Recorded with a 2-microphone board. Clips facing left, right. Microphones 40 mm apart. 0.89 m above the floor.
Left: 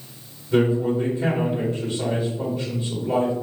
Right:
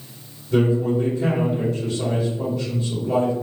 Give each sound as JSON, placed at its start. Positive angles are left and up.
{"t": 0.5, "sound": "a man speaking", "side_deg": 15, "distance_m": 1.2}